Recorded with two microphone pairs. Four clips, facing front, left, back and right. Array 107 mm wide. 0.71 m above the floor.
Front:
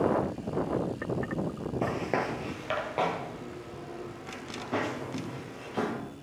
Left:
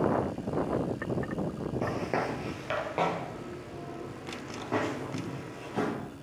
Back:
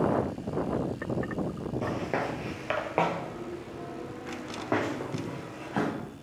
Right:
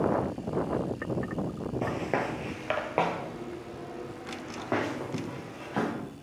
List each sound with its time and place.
1.8 s footsteps: 15° right, 0.7 m; by 5.9 s 145° right, 2.5 m